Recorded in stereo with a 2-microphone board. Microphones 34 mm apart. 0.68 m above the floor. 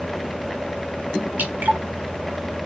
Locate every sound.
1.4 s dripping: 60° right (ahead or behind), 2.5 m